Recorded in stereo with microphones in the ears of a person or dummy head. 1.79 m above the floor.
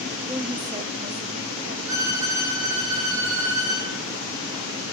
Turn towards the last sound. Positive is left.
turn(degrees=-45)  # may be behind; listen again after turning